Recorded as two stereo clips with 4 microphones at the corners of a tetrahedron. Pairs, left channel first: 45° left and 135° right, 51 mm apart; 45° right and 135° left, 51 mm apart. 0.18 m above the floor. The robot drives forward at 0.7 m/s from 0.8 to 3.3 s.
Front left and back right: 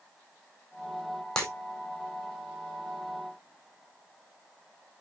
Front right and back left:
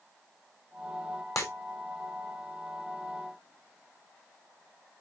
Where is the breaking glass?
30° right, 2.5 m; by 1.5 s 35° right, 2.5 m.